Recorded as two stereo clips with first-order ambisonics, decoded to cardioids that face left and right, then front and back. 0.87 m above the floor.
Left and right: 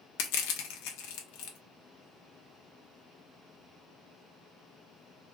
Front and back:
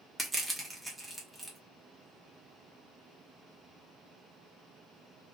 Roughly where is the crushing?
Left.